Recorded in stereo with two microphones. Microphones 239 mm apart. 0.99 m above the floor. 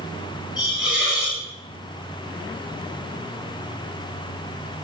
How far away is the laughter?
No laughter in this recording.